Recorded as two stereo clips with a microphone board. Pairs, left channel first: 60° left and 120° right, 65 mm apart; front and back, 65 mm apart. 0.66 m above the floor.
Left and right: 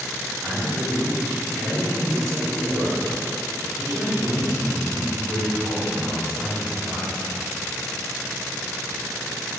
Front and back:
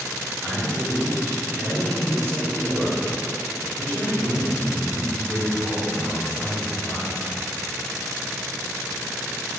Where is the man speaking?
135° right, 1.7 m.